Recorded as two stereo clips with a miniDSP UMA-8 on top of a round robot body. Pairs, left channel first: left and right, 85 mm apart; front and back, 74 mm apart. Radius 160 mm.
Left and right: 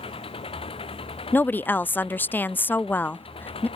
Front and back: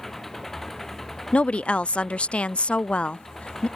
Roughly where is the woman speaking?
Ahead left.